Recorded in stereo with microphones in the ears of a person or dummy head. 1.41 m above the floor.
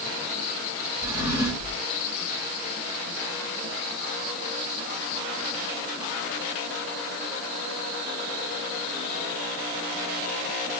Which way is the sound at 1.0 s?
15° right (ahead or behind).